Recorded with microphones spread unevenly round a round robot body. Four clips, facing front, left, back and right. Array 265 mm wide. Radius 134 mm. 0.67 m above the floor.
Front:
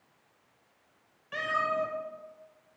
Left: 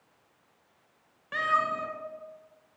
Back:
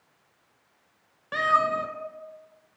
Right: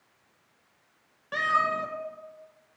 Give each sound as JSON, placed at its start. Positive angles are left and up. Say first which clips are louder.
{"t": 1.3, "sound": "a cat meowing", "louder": "right 1 dB, back 7 dB", "azimuth_deg": -160, "distance_m": 1.0}